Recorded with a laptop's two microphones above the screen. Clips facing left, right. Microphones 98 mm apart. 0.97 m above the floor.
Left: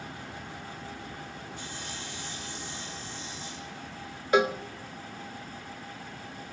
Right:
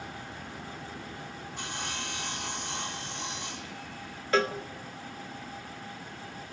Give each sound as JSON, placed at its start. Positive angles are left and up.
{"t": 1.6, "sound": "sawing", "side_deg": -65, "distance_m": 1.9}
{"t": 4.3, "sound": "a cowbell", "side_deg": 15, "distance_m": 0.7}